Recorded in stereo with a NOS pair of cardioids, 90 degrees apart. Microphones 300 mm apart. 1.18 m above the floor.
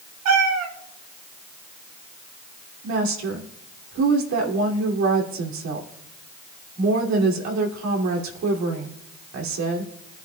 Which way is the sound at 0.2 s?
65° right.